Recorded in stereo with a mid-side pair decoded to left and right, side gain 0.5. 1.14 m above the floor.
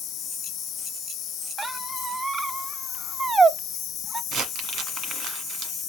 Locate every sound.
0.0 s an insect: 70° left, 1.1 m
1.6 s a squeak: 30° right, 0.6 m
4.3 s crumpling: 70° right, 1.6 m